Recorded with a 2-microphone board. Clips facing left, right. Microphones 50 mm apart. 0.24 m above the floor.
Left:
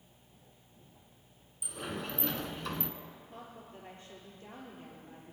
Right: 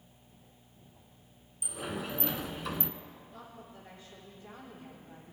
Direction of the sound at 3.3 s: 50° left (ahead or behind).